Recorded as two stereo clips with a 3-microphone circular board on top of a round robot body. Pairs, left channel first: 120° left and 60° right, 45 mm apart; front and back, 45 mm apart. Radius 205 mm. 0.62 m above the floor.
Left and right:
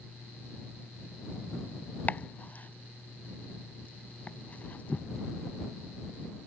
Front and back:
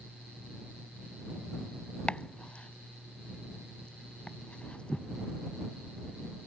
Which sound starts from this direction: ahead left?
Chopping, at 2.1 s.